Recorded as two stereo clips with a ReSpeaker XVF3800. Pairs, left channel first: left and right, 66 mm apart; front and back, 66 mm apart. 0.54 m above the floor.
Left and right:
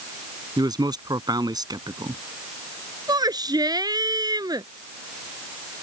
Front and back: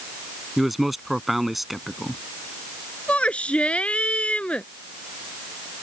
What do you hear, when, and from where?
0.6 s a man speaking: 95° right
3.1 s a shout: 75° right